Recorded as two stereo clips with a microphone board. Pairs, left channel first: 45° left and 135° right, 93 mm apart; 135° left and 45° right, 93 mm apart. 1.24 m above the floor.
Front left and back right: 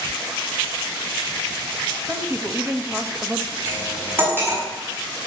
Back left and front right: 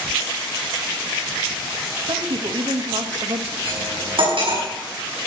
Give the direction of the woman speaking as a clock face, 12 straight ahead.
2 o'clock.